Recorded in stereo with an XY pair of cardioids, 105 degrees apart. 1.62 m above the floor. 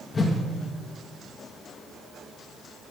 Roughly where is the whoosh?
Ahead left.